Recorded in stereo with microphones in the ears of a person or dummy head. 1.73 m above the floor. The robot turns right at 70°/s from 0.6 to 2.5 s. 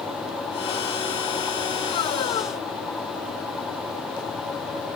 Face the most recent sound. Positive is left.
No sound to turn to.